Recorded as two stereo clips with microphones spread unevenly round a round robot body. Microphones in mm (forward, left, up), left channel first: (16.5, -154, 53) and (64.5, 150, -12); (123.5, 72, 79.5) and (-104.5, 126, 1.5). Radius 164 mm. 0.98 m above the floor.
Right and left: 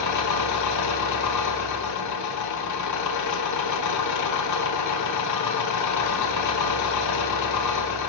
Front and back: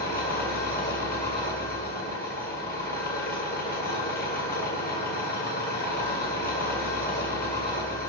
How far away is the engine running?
About 1.6 m.